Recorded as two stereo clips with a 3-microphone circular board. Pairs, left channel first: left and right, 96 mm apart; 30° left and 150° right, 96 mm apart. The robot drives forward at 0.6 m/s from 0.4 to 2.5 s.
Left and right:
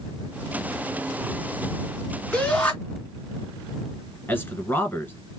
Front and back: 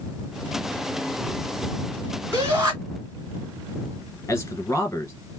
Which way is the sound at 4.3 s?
55° left.